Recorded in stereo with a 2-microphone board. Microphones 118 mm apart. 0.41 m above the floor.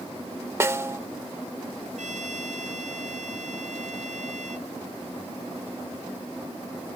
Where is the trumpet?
85° right.